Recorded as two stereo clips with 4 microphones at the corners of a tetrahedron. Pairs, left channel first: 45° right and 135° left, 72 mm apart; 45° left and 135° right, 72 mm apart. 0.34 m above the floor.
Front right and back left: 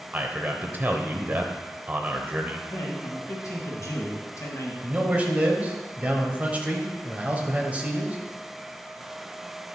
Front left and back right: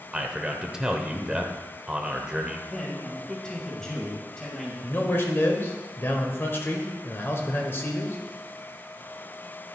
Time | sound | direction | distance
0.1 | a man speaking | 155° left | 0.9 m
2.7 | a man speaking | 35° right | 1.7 m
4.8 | a man speaking | 80° left | 1.2 m